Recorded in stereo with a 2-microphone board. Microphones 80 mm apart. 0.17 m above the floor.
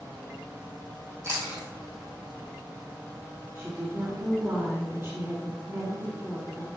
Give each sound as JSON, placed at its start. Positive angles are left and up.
{"t": 1.2, "sound": "chewing", "side_deg": -35, "distance_m": 2.5}
{"t": 3.5, "sound": "a woman speaking", "side_deg": -40, "distance_m": 2.0}